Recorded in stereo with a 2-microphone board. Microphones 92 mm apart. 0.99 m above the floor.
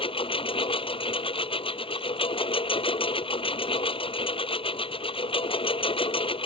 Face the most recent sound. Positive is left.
turn(degrees=75)  # may be behind; listen again after turning